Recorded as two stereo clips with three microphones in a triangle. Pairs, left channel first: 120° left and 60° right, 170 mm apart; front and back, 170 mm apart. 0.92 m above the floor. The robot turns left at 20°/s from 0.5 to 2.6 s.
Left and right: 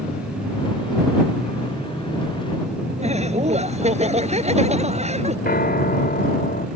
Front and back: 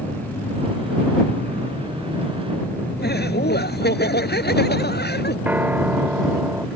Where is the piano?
100° left.